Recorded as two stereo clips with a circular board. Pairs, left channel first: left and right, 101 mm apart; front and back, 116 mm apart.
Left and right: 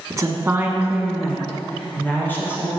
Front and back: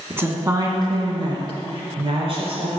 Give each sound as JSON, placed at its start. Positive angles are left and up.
{"t": 0.1, "sound": "a woman speaking", "azimuth_deg": -120, "distance_m": 1.7}